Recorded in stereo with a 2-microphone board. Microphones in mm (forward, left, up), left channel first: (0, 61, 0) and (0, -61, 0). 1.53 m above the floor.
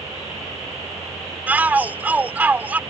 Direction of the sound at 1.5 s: 15° right (ahead or behind).